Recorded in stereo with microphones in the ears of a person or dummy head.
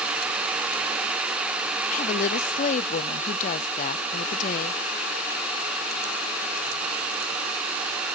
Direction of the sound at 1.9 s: 40° left (ahead or behind).